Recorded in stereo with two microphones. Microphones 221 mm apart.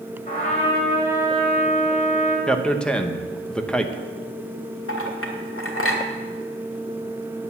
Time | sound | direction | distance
0.3 | a trumpet | 35° left (ahead or behind) | 3 m
2.5 | a man speaking | 5° left (ahead or behind) | 0.9 m
4.9 | a clink | 75° left (ahead or behind) | 1.8 m